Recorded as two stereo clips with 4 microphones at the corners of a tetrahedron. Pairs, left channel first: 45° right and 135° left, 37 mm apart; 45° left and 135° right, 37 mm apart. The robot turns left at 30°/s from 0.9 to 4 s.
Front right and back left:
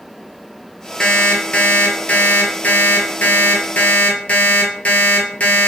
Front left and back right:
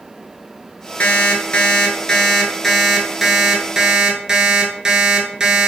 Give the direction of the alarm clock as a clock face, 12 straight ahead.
11 o'clock.